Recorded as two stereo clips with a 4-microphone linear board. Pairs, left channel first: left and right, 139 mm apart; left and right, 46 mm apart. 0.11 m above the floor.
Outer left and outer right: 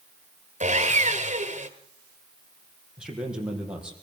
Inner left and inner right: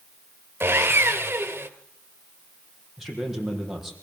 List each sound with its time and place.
0.6 s sawing: 55° right (ahead or behind), 1.7 m
3.0 s a man speaking: 5° right (ahead or behind), 5 m